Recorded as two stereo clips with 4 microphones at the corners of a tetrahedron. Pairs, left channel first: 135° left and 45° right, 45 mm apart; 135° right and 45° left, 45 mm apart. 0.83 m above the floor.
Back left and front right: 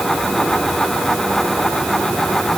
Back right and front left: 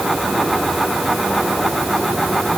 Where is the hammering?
No hammering in this recording.